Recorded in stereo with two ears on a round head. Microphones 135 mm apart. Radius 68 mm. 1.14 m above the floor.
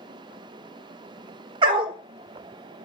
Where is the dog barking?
30° right (ahead or behind), 0.9 m.